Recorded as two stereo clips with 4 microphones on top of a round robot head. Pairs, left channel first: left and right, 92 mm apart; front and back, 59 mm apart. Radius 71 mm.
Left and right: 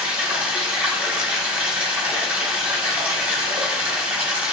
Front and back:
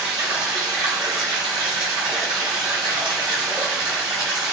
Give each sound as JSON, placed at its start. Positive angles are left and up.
{"t": 0.0, "sound": "running water", "azimuth_deg": -165, "distance_m": 0.8}